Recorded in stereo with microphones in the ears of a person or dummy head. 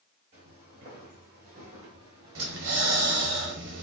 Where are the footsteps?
30° right (ahead or behind), 1.6 m; by 3.4 s 15° right (ahead or behind), 1.5 m.